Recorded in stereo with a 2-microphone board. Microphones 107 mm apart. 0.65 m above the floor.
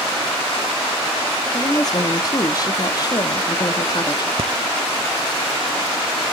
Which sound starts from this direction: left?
A woman speaking, at 1.5 s.